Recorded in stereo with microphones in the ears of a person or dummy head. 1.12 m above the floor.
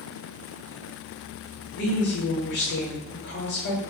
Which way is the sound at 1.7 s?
50° left (ahead or behind).